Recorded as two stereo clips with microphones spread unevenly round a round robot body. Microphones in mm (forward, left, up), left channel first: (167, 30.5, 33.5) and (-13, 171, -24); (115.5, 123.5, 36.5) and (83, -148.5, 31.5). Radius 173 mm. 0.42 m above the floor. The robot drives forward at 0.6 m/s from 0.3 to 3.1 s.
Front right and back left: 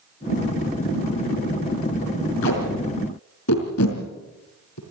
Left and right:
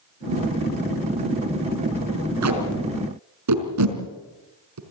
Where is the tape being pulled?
75° right, 4.5 m; by 4.8 s 80° right, 4.5 m.